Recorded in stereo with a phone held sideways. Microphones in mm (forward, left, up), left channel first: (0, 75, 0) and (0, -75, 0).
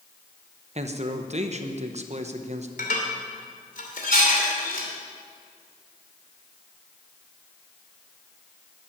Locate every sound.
0.8 s a man speaking: 50° right (ahead or behind), 1.0 m
2.8 s dishes clattering: 65° left (ahead or behind), 2.5 m